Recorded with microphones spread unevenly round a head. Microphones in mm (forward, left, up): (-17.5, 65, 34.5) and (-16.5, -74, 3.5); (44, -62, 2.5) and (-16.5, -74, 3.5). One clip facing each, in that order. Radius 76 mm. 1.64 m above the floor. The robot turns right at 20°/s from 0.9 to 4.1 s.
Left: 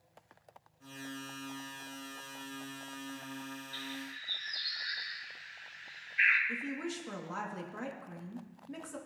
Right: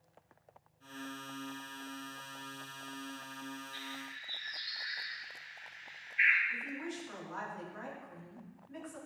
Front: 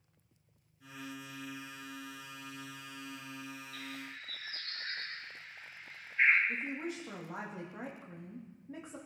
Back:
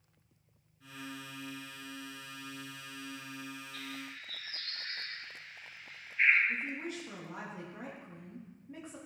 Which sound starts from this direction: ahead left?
A bird, at 3.7 s.